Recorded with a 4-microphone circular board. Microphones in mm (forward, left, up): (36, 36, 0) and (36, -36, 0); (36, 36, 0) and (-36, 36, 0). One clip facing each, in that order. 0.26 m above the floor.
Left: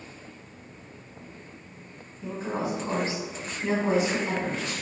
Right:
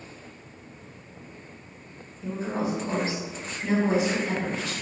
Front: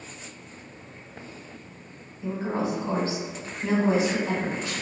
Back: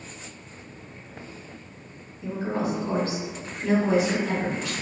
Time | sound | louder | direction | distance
2.2 | a woman speaking | right 1 dB, even | 45° left | 1.4 m